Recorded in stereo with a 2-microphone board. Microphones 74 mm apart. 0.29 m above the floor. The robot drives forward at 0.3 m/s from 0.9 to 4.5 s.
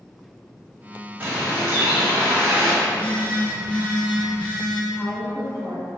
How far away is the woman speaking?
About 2.0 m.